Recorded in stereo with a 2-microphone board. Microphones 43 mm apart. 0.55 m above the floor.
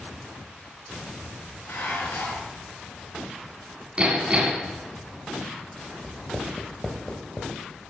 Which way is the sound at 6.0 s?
10° left (ahead or behind).